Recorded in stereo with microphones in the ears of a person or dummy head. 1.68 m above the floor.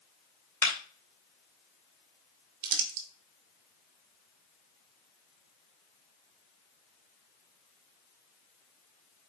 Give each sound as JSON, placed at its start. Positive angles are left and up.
{"t": 0.6, "sound": "a clap", "side_deg": 10, "distance_m": 2.0}
{"t": 2.6, "sound": "crumpling", "side_deg": -55, "distance_m": 1.5}